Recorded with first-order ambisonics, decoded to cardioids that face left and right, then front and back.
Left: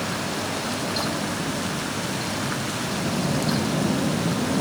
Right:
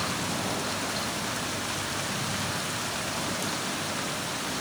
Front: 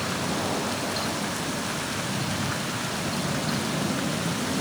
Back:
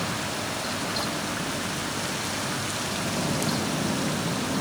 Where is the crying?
No crying in this recording.